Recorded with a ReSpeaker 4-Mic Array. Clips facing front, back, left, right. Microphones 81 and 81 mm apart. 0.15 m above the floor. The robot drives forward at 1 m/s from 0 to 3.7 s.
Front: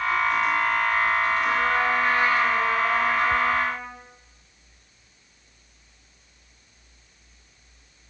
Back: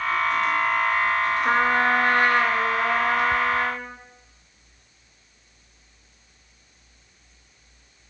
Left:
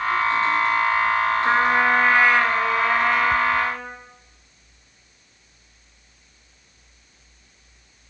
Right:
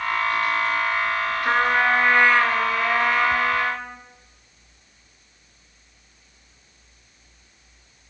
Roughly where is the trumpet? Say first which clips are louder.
Back 2 dB, right 1 dB; behind.